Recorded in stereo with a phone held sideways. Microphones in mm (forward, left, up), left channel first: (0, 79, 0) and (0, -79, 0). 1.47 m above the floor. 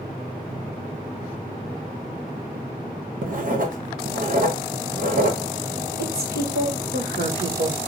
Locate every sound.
3.2 s writing: 60° right (ahead or behind), 0.7 m
6.0 s a woman speaking: 75° right (ahead or behind), 1.7 m